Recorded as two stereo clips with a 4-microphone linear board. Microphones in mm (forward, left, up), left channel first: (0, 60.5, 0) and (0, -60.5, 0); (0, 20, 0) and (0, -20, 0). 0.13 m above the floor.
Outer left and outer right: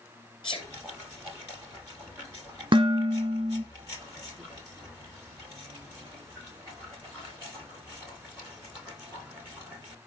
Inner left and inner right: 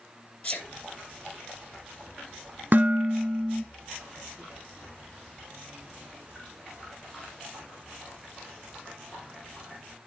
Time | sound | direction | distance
0.4 | a sneeze | 45° left (ahead or behind) | 2 m
2.7 | dishes clattering | 40° right (ahead or behind) | 1.2 m